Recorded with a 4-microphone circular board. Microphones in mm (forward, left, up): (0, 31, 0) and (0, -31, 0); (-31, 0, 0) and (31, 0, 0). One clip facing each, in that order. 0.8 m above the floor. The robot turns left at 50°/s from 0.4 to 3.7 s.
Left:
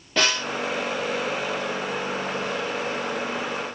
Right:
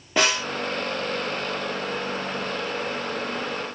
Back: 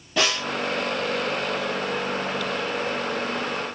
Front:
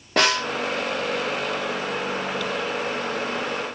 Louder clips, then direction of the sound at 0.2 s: Right 1 dB, front 3 dB; 15° right.